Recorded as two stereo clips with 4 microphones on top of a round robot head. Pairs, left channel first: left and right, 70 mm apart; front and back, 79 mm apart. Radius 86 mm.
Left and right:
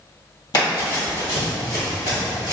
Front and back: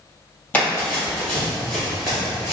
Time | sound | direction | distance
0.5 | running footsteps | 75° left | 2.0 m